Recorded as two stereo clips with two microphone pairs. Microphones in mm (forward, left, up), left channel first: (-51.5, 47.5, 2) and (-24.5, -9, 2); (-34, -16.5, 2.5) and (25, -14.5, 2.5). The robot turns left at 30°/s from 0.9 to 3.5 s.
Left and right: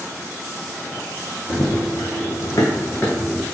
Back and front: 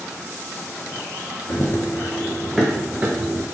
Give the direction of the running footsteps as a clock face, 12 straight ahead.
7 o'clock.